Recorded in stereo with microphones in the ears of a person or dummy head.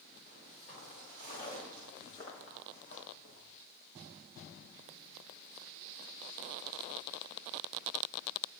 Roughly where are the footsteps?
Left.